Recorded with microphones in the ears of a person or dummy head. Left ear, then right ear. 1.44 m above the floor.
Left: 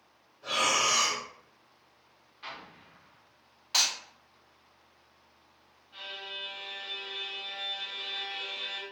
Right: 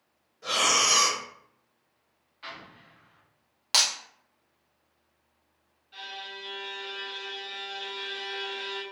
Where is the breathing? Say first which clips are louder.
Right 3 dB; 70° right (ahead or behind), 1.2 m.